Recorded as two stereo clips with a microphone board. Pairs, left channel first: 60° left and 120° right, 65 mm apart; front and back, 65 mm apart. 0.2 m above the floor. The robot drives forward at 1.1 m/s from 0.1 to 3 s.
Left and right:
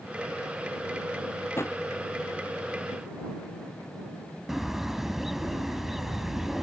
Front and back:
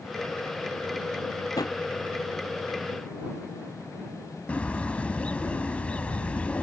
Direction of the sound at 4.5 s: 40° right.